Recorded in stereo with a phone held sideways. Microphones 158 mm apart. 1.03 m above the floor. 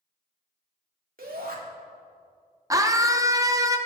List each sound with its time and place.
1.2 s a shout: 65° right (ahead or behind), 2.5 m
2.7 s a scream: 20° right (ahead or behind), 0.7 m